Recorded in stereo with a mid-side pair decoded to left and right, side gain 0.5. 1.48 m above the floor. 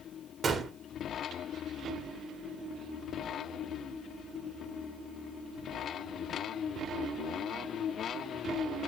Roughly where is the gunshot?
Ahead right.